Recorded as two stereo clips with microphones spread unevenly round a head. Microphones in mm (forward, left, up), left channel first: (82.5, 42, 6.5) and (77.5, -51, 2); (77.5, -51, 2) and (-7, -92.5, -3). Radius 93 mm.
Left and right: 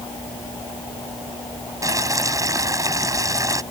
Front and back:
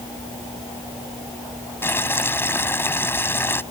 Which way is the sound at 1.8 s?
40° right.